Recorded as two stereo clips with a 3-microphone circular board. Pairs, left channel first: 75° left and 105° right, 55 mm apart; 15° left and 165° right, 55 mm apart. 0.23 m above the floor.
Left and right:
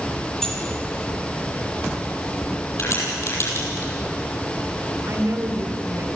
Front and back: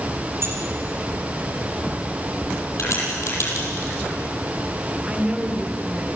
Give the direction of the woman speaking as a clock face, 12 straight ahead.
3 o'clock.